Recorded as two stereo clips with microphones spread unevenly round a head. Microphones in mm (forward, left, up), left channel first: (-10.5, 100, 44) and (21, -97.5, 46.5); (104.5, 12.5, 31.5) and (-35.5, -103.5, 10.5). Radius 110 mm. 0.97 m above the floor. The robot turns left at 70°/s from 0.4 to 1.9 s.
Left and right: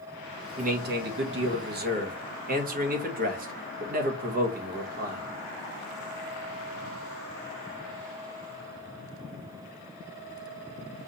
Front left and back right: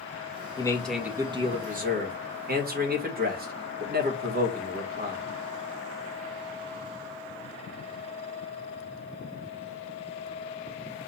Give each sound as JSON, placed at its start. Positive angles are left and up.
{"t": 0.6, "sound": "a man speaking", "azimuth_deg": -30, "distance_m": 1.5}